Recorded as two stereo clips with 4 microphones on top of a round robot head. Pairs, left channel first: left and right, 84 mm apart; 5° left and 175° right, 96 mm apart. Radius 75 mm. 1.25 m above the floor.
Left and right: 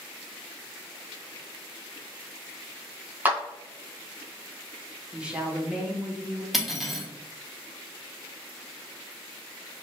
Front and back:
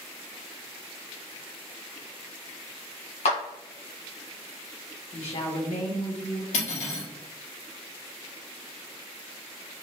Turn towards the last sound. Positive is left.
turn(degrees=0)